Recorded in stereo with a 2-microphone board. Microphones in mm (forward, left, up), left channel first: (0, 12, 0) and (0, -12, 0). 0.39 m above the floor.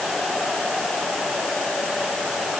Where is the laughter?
I don't hear laughter.